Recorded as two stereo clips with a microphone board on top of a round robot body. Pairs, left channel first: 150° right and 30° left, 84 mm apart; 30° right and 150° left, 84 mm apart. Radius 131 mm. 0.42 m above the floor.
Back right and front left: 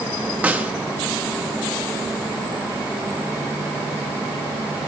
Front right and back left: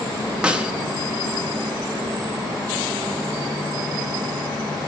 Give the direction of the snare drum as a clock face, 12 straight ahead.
9 o'clock.